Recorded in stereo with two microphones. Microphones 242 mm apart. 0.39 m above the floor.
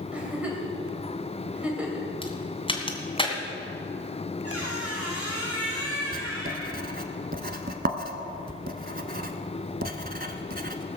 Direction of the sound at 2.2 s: 20° left (ahead or behind).